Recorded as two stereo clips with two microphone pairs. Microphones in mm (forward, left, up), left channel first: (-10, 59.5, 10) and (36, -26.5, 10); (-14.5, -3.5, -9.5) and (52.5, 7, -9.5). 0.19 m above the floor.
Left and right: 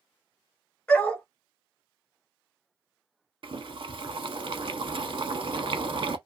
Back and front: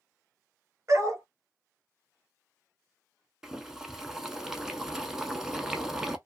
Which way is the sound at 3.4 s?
70° right.